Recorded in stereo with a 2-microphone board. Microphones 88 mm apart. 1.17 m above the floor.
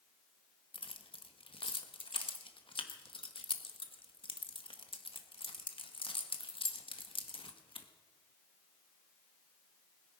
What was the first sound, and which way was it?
Keys jangling, 85° left.